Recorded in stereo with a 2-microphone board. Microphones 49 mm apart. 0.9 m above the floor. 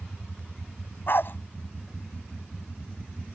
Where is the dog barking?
50° left (ahead or behind).